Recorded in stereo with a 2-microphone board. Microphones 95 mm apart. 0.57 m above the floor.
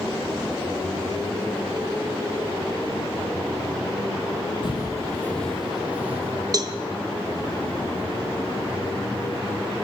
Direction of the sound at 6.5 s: 40° right (ahead or behind).